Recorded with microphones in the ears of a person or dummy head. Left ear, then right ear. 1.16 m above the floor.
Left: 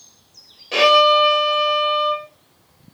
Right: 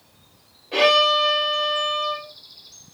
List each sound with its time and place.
0.7 s a violin: 80° left, 3 m